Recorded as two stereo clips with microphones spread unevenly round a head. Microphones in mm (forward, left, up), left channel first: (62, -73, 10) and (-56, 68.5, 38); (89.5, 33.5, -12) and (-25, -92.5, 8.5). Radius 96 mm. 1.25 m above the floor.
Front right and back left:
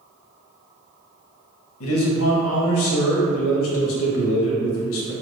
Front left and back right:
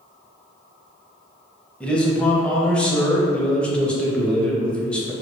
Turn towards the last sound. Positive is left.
turn(degrees=-35)